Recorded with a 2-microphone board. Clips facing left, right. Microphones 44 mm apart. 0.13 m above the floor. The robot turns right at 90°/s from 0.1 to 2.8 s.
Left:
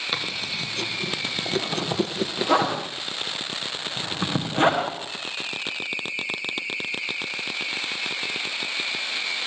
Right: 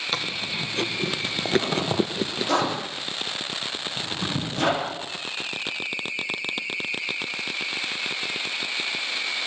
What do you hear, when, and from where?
0.1 s chewing: 5° left (ahead or behind), 1.6 m; by 2.5 s 15° left (ahead or behind), 1.6 m
1.4 s a zipper: 80° right, 8 m; by 5.0 s 35° left (ahead or behind), 8 m